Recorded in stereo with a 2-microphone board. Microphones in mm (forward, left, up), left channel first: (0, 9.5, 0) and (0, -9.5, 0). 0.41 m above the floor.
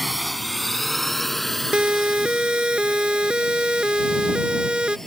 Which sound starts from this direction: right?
A siren, at 1.7 s.